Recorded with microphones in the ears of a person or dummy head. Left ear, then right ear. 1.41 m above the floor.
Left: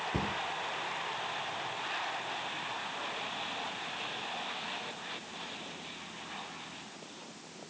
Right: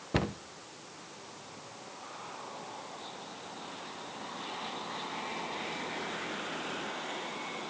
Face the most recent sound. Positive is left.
turn(degrees=-40)  # may be behind; listen again after turning